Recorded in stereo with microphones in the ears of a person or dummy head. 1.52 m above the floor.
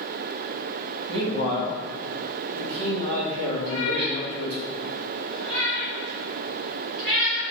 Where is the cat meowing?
30° right (ahead or behind), 1.6 m.